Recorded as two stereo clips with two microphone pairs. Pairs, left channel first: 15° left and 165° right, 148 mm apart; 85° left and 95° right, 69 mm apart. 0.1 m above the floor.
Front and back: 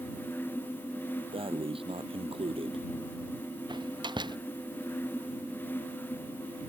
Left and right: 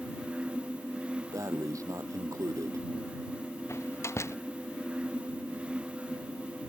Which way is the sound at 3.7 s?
135° left.